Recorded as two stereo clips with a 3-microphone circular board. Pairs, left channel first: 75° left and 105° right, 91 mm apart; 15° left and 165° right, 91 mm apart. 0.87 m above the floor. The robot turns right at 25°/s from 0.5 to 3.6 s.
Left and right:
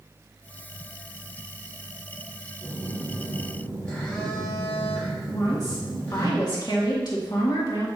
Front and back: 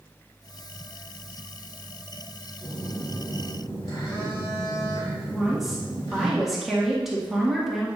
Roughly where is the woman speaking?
Left.